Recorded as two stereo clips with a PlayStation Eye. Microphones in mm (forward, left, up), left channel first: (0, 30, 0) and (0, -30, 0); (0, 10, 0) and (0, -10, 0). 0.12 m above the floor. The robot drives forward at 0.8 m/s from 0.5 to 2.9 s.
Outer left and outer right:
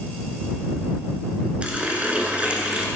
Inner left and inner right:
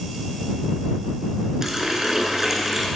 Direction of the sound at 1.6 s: 20° right (ahead or behind).